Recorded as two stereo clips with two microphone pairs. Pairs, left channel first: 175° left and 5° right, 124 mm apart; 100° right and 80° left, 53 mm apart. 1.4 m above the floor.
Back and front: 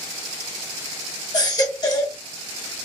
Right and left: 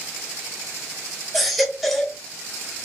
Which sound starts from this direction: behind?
A baby crying, at 1.3 s.